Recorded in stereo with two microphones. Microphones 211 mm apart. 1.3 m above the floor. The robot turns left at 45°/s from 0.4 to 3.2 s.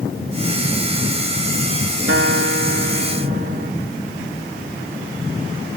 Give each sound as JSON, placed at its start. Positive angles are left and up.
{"t": 2.1, "sound": "a guitar", "azimuth_deg": -75}